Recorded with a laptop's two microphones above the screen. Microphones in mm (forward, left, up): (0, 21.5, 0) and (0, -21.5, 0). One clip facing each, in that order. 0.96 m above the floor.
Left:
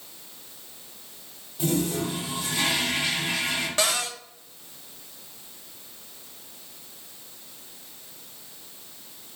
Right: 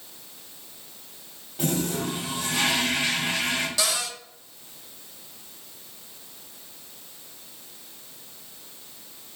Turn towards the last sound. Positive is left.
turn(degrees=40)  # may be behind; listen again after turning